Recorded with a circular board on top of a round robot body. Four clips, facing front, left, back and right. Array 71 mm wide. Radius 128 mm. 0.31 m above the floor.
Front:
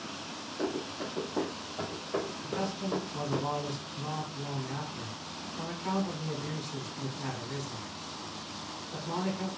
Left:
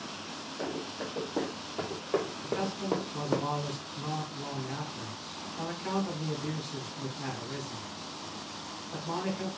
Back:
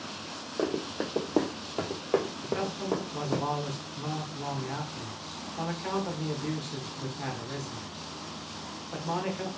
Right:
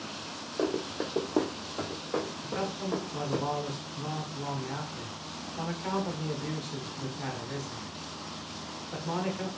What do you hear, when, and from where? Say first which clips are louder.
0.6 s running footsteps: right 6 dB, back 4 dB; 145° right, 1.2 m; by 3.4 s 115° left, 1.0 m
2.4 s a man speaking: left 1 dB, back 3 dB; 155° right, 1.5 m